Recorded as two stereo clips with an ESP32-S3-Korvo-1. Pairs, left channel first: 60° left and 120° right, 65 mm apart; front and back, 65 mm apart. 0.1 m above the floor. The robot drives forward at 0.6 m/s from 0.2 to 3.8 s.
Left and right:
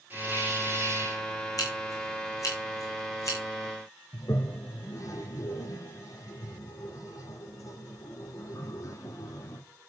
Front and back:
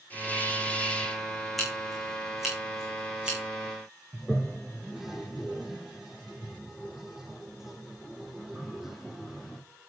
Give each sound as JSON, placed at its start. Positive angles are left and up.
{"t": 0.1, "sound": "a hiss", "azimuth_deg": -60, "distance_m": 3.0}
{"t": 1.6, "sound": "scissors", "azimuth_deg": 90, "distance_m": 4.5}
{"t": 4.1, "sound": "a toilet flushing", "azimuth_deg": 95, "distance_m": 1.6}